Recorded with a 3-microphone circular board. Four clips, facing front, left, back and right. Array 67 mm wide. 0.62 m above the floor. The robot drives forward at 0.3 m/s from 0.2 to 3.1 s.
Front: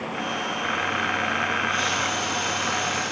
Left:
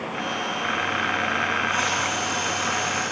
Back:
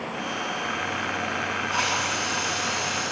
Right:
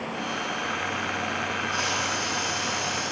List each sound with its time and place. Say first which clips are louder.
1.7 s a hiss: left 3 dB, front 1 dB; 165° left, 8 m